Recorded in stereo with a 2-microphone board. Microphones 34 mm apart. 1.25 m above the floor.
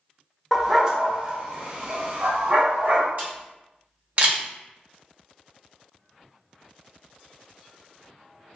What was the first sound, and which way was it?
A dog barking, 5° right (ahead or behind).